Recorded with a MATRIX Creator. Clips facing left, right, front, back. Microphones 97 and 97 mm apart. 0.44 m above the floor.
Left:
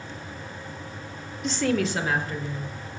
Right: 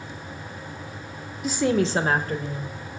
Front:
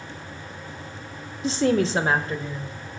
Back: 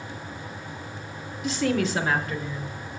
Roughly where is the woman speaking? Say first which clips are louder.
Right 3 dB, front 4 dB; ahead.